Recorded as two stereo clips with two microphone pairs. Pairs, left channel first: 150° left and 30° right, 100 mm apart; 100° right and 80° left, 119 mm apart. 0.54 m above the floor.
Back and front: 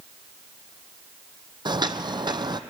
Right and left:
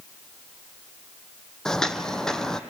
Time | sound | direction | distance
1.6 | footsteps | 10° right | 0.8 m